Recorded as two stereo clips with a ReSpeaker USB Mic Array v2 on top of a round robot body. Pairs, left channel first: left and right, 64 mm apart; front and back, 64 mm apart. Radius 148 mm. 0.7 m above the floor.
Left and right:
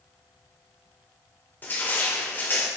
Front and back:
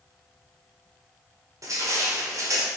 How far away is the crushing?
About 1.7 m.